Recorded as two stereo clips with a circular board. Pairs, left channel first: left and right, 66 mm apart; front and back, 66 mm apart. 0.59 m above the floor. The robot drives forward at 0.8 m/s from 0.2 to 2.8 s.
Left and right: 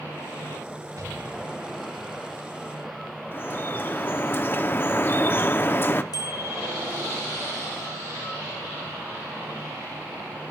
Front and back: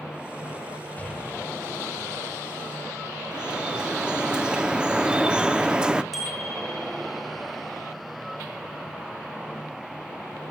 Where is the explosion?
65° right, 2 m; by 2.1 s 90° right, 1.8 m.